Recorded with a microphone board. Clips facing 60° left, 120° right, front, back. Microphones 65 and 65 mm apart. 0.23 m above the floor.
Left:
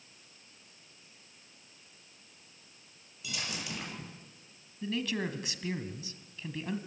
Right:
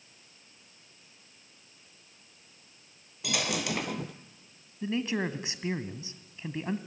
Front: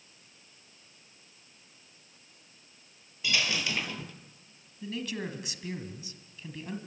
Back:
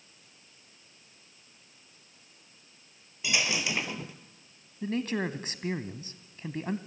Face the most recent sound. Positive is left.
turn(degrees=-170)